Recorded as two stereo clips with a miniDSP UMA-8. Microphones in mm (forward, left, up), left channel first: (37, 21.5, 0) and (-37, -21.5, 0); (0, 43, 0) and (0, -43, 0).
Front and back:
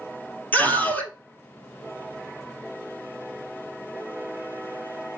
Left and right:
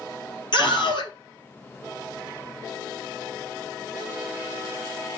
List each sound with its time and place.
0.5 s a scream: 100° left, 3.5 m